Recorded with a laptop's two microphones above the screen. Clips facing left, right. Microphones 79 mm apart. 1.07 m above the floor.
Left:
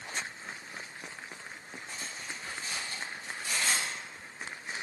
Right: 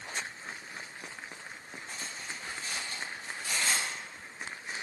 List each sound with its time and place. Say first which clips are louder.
1.9 s cutlery clinking: even; 25° left (ahead or behind), 1.2 m